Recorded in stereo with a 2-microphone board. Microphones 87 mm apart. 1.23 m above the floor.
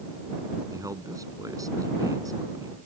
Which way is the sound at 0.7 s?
40° right (ahead or behind).